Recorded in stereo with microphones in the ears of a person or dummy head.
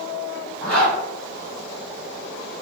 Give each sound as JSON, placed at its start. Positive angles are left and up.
{"t": 0.6, "sound": "a zipper", "side_deg": 5, "distance_m": 1.9}